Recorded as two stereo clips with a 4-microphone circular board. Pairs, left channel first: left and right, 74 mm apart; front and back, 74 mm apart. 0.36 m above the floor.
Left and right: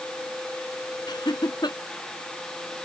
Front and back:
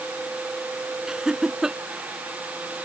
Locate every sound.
1.1 s laughter: 100° left